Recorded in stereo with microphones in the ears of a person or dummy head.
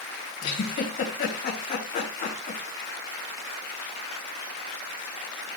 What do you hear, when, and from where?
0.4 s a giggle: 40° left (ahead or behind), 3.5 m